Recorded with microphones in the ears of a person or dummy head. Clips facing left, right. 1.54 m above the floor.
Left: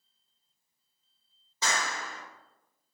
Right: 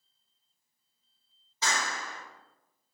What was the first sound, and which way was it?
A clap, 75° left (ahead or behind).